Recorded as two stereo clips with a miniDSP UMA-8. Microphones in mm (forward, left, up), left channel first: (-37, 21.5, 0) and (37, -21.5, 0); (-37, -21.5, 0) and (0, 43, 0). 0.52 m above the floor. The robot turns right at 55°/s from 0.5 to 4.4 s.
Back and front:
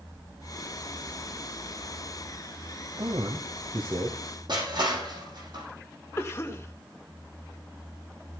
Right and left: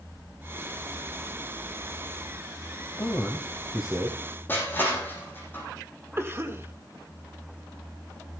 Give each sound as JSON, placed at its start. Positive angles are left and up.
{"t": 3.0, "sound": "a man speaking", "azimuth_deg": -70, "distance_m": 2.0}
{"t": 4.5, "sound": "crushing", "azimuth_deg": -60, "distance_m": 6.5}
{"t": 6.2, "sound": "a cough", "azimuth_deg": 100, "distance_m": 1.8}